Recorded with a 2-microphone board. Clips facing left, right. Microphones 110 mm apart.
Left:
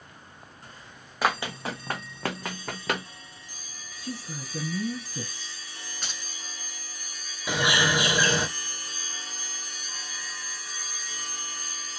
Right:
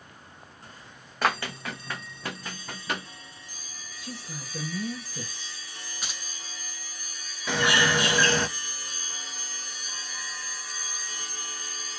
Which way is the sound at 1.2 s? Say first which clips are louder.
Even; 5° left (ahead or behind).